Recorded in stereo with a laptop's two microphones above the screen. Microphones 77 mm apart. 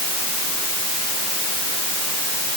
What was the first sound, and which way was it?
Only background noise.